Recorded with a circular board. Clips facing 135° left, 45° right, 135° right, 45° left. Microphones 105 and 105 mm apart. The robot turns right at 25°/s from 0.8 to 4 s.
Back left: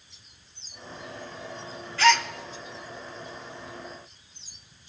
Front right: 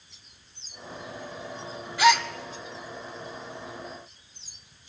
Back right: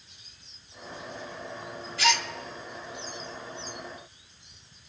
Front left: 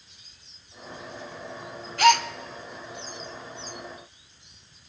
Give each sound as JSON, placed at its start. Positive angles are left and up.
{"t": 2.0, "sound": "a gasp", "azimuth_deg": 30, "distance_m": 0.6}